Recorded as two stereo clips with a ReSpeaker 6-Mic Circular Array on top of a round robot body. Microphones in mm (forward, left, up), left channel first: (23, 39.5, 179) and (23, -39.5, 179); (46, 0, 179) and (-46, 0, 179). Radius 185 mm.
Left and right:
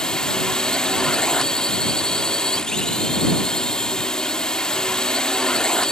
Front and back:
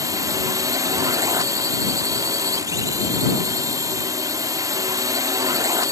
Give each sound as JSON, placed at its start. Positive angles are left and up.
{"t": 0.0, "sound": "a drone", "azimuth_deg": 165}